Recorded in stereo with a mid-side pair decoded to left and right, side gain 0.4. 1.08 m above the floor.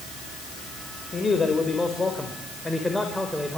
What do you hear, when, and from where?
1.1 s a man speaking: 40° left, 5 m; by 3.6 s 5° left, 5 m